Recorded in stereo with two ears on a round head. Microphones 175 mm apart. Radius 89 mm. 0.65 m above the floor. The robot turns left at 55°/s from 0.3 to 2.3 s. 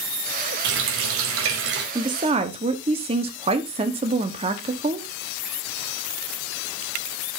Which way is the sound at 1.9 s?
20° right (ahead or behind).